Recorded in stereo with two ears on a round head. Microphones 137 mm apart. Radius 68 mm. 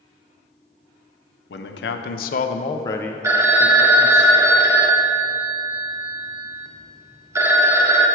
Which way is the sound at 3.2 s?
20° right (ahead or behind).